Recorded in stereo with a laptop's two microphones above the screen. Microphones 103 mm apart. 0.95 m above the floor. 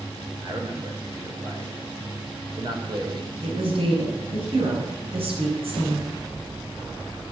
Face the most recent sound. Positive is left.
turn(degrees=-70)  # may be behind; listen again after turning